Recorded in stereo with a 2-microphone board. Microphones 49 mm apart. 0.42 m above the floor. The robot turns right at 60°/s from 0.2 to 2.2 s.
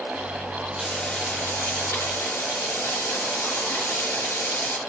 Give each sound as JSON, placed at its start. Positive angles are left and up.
{"t": 0.8, "sound": "frying", "azimuth_deg": 0, "distance_m": 3.0}